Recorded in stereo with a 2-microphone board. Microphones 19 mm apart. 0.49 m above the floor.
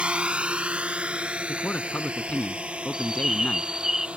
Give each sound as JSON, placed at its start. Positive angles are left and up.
{"t": 0.0, "sound": "a drone", "side_deg": -70}
{"t": 1.5, "sound": "a man speaking", "side_deg": 75}
{"t": 2.9, "sound": "a bird", "side_deg": -25}